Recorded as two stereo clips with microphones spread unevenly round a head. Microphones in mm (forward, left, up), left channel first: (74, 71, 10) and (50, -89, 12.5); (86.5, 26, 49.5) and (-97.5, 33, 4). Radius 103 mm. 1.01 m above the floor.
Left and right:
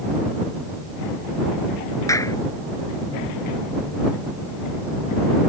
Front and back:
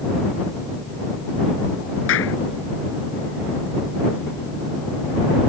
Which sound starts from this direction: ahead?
A clap, at 2.1 s.